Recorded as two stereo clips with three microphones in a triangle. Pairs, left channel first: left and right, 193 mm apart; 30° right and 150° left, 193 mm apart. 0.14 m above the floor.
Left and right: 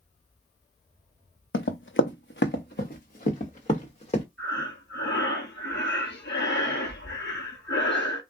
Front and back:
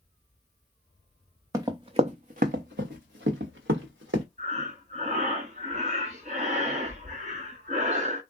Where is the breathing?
100° left, 0.8 m.